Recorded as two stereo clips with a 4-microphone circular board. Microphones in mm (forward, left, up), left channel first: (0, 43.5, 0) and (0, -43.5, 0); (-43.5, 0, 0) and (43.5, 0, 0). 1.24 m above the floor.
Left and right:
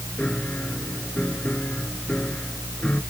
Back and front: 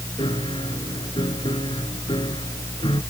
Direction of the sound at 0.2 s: 165° left.